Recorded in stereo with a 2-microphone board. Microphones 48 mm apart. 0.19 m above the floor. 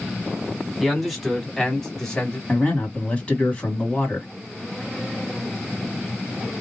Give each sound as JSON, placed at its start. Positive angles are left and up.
{"t": 0.8, "sound": "a man speaking", "side_deg": 0, "distance_m": 1.4}
{"t": 2.5, "sound": "a man speaking", "side_deg": 20, "distance_m": 1.6}